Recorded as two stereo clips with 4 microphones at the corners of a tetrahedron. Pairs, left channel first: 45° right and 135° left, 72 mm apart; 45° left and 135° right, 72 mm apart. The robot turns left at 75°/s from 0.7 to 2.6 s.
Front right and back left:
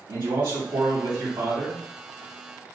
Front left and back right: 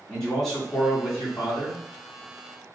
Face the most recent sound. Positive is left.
turn(degrees=-15)